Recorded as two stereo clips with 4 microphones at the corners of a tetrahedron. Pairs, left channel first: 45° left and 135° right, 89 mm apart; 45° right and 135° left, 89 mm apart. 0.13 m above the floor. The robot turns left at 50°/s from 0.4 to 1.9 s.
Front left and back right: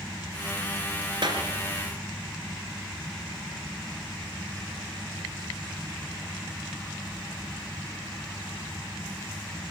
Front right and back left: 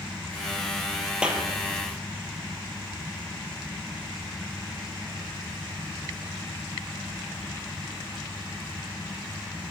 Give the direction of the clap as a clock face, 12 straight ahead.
5 o'clock.